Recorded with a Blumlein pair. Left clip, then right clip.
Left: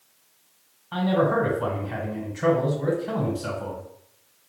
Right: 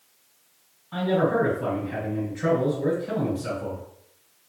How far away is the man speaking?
About 1.6 m.